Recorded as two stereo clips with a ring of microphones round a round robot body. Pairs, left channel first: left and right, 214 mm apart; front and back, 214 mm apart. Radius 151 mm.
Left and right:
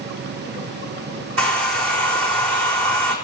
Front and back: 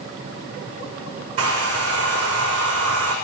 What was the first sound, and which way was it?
A hair dryer, 105° right.